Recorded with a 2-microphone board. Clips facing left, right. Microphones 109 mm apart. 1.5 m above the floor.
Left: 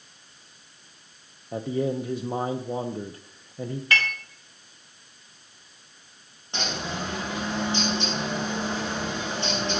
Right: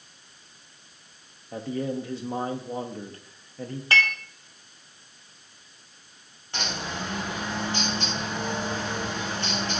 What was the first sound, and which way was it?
A man speaking, 15° left (ahead or behind).